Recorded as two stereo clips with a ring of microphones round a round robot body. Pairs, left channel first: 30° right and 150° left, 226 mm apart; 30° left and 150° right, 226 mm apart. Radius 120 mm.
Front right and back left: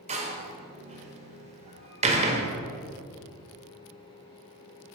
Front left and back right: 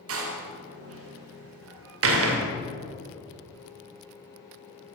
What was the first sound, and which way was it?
A door slam, 150° right.